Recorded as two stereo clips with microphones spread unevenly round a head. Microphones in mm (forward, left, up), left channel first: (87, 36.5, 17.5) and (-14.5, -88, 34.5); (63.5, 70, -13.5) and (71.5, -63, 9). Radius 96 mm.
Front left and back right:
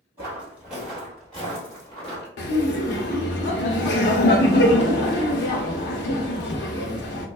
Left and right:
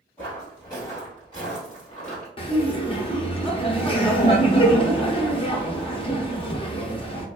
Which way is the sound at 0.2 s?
Straight behind.